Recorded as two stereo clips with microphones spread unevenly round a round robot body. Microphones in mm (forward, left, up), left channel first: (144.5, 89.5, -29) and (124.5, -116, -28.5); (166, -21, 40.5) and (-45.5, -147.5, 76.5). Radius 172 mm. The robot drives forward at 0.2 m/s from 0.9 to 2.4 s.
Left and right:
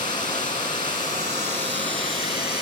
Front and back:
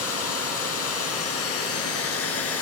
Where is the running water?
35° left, 1.5 m; by 2.6 s 45° left, 1.3 m.